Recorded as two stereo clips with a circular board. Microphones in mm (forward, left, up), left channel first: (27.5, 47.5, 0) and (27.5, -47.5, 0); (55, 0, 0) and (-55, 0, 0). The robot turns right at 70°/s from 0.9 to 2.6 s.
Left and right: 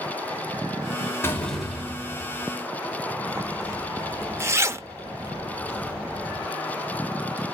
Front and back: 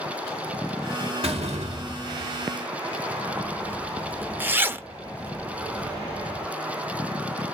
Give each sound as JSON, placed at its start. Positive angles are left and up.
{"t": 1.2, "sound": "a door slam", "azimuth_deg": 155, "distance_m": 1.5}
{"t": 3.4, "sound": "a zipper", "azimuth_deg": -120, "distance_m": 0.8}